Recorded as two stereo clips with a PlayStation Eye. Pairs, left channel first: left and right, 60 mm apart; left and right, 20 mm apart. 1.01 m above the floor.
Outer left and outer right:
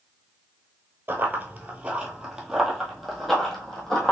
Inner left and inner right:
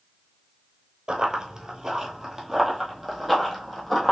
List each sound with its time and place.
1.1 s running footsteps: 35° right (ahead or behind), 1.2 m; by 4.1 s 5° left (ahead or behind), 2 m